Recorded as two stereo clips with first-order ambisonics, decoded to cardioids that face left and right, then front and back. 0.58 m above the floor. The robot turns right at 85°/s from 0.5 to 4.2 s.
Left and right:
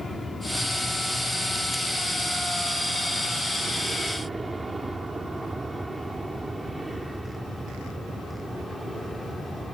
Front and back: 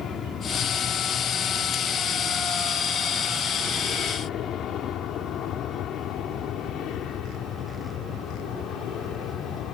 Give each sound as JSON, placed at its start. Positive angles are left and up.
{"t": 0.0, "sound": "an aircraft", "azimuth_deg": 15}